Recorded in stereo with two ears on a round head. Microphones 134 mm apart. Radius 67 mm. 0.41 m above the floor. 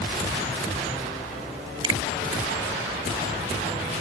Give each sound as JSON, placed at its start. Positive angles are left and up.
{"t": 1.8, "sound": "a finger snap", "side_deg": -35}